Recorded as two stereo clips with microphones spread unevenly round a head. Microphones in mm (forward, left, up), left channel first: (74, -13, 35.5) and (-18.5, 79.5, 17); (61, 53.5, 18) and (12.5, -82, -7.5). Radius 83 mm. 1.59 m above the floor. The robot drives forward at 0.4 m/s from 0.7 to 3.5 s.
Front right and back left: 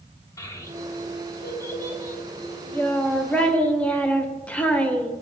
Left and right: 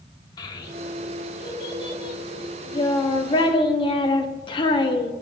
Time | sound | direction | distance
0.4 | a child speaking | 15° left | 2.5 m